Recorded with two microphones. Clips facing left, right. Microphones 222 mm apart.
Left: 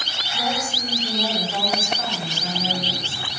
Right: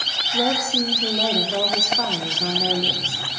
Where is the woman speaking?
65° right (ahead or behind), 2 m.